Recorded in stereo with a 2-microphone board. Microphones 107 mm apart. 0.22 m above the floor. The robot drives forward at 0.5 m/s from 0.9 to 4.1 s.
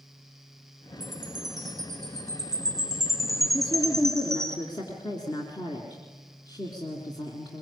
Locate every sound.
1.0 s a chime: 40° right (ahead or behind), 3 m; by 4.5 s 25° right (ahead or behind), 4.5 m
3.5 s a woman speaking: 45° left (ahead or behind), 3 m; by 7.6 s 40° left (ahead or behind), 3 m